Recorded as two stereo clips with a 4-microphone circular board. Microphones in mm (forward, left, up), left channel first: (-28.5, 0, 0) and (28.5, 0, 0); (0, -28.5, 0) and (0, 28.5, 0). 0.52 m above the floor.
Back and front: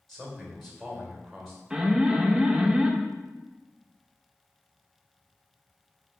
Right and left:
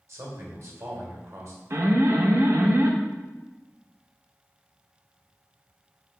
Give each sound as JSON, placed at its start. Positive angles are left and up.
{"t": 0.1, "sound": "a man speaking", "azimuth_deg": 95, "distance_m": 1.6}
{"t": 1.7, "sound": "an alarm", "azimuth_deg": 75, "distance_m": 0.6}